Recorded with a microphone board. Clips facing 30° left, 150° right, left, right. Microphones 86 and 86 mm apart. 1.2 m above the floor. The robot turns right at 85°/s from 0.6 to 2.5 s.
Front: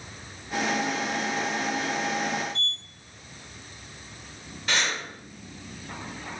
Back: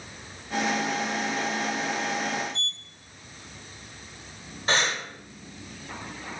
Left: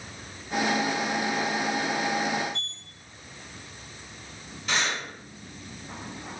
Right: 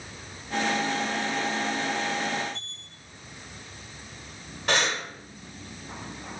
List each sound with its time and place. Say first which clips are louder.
2.5 s a sliding door: front 2 dB, left 3 dB; 70° left, 1.5 m
4.7 s breathing: back 2 dB, right 3 dB; 100° right, 1.5 m